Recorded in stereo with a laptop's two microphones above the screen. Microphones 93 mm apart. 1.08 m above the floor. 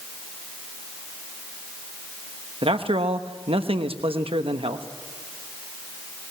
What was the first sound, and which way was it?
A man speaking, 80° right.